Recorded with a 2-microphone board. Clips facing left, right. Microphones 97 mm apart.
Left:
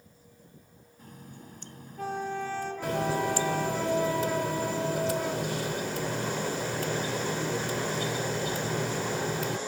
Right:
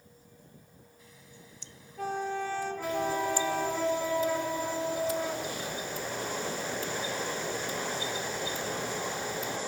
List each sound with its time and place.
1.0 s a running tap: 50° left (ahead or behind)
2.8 s a running tap: 75° left (ahead or behind)